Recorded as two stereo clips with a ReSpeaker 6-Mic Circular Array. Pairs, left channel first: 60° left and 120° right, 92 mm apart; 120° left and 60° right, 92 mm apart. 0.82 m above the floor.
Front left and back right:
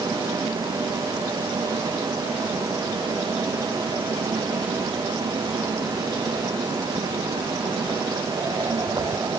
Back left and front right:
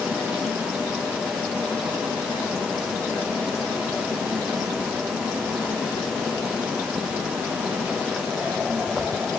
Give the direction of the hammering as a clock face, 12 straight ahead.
No hammering in this recording.